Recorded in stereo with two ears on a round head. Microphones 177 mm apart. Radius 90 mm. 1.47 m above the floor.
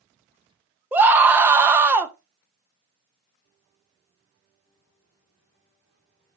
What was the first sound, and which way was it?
A scream, 10° right (ahead or behind).